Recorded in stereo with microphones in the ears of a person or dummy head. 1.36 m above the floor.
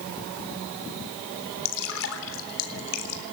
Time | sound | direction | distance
1.6 | dripping | 80° left | 3.5 m